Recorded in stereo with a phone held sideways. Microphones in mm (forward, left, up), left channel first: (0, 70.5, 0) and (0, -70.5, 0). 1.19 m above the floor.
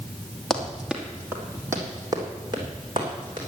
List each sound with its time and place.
0.5 s running footsteps: centre (ahead or behind), 2.5 m; by 3.4 s 40° right (ahead or behind), 5 m